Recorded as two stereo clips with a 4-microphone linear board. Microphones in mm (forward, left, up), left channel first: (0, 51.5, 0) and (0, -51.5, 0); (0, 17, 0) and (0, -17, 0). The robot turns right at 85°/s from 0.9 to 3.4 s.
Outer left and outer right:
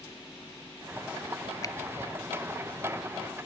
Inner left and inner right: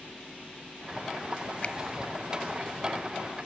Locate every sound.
1.6 s a finger snap: 40° left (ahead or behind), 0.9 m